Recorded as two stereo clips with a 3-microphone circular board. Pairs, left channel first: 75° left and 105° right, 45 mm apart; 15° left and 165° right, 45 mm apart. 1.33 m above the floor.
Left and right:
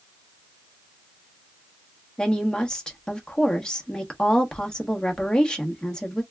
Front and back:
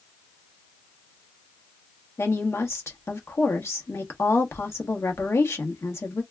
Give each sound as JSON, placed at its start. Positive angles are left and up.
{"t": 2.2, "sound": "a woman speaking", "azimuth_deg": 0, "distance_m": 1.1}